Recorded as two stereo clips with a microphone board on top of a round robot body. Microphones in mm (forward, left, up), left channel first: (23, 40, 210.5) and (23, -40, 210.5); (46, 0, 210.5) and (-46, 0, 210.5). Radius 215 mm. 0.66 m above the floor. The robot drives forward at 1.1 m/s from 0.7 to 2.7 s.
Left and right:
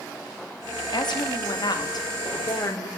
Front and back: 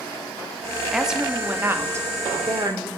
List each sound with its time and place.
0.9 s a woman speaking: 95° left, 2.5 m; by 2.9 s 135° left, 3 m